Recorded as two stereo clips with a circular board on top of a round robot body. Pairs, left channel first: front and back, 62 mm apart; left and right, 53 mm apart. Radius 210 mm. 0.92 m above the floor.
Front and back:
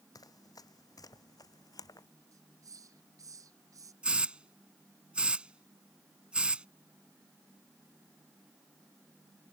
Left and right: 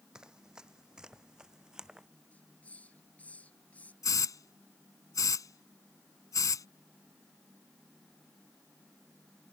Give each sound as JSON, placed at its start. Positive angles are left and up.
{"t": 0.1, "sound": "running footsteps", "azimuth_deg": -15}
{"t": 2.3, "sound": "a hiss", "azimuth_deg": 155}
{"t": 4.0, "sound": "a hiss", "azimuth_deg": 105}